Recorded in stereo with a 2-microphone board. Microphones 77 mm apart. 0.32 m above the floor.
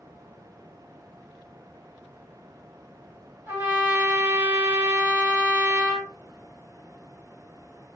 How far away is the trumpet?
About 1.7 m.